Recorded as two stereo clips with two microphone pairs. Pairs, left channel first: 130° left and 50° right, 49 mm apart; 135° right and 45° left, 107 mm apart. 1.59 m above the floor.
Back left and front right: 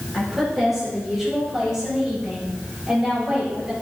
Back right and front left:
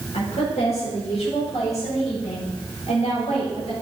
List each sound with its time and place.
0.1 s a woman speaking: 135° right, 5 m; by 3.7 s 120° right, 8 m